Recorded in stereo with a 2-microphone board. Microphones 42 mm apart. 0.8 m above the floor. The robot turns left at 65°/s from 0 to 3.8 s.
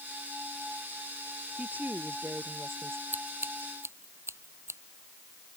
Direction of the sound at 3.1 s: 50° right (ahead or behind).